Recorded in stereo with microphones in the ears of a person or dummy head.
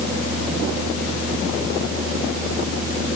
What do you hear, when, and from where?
Only background noise.